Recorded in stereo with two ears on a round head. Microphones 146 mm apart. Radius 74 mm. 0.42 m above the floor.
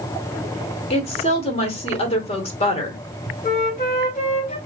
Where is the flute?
50° left (ahead or behind), 1.8 m.